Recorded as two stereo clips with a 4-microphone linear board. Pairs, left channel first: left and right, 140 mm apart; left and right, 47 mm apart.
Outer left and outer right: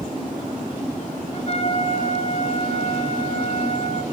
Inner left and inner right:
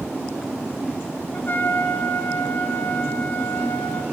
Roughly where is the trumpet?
Left.